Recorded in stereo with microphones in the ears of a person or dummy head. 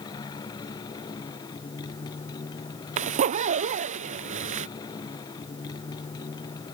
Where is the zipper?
40° right (ahead or behind).